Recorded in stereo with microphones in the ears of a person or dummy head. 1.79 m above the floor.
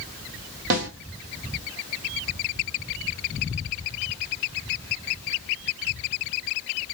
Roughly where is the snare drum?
Right.